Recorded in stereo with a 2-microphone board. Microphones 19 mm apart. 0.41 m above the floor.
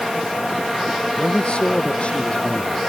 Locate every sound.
1.2 s a man speaking: 55° left (ahead or behind)